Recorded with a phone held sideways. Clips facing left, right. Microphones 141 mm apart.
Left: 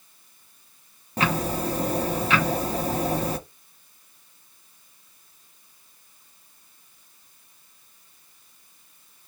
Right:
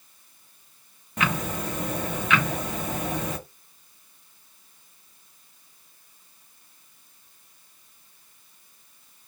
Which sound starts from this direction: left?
Ticking, at 1.2 s.